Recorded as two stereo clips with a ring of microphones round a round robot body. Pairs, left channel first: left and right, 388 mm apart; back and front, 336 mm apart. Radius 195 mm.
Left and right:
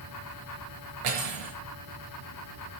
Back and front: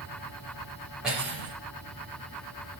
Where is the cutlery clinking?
90° right, 4.5 m.